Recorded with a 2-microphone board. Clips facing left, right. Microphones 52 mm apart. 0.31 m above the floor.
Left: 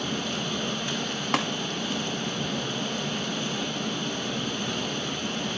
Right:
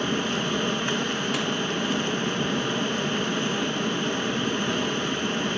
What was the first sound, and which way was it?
Running water, 40° right (ahead or behind).